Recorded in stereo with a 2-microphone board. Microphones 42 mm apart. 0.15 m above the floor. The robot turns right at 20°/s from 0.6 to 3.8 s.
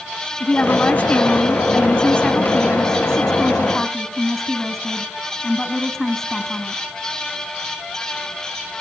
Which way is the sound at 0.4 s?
30° left (ahead or behind).